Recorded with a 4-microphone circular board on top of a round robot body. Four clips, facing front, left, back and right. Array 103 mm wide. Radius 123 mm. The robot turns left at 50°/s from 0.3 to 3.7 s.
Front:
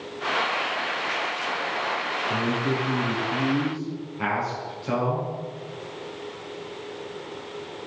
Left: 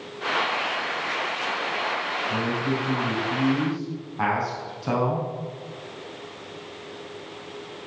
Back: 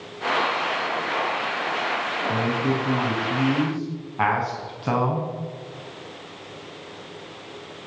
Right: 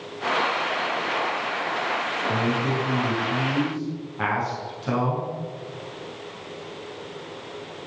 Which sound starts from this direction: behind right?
A man speaking, at 2.3 s.